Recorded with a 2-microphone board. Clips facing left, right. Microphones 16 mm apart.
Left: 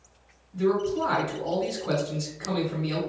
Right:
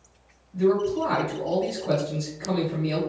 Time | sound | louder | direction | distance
0.5 | a man speaking | right 3 dB | 25° left (ahead or behind) | 1.8 m